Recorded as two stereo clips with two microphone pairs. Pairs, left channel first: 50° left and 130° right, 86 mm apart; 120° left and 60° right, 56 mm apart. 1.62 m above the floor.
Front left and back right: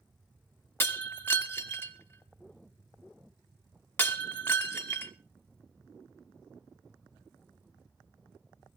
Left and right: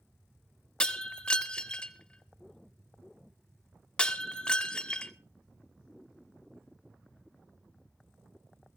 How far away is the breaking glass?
About 1.2 m.